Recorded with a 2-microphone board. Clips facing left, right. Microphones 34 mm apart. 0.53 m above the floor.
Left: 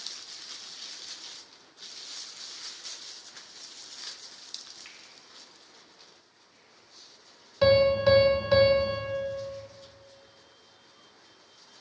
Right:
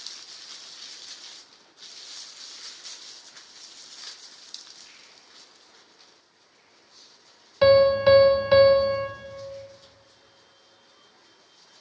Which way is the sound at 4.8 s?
65° left (ahead or behind).